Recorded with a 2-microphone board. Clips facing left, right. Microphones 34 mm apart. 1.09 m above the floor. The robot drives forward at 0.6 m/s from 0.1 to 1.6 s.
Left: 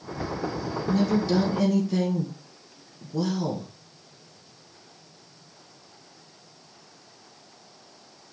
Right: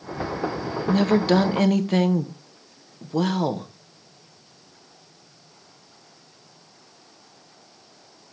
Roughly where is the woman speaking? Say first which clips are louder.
Right 5 dB; right.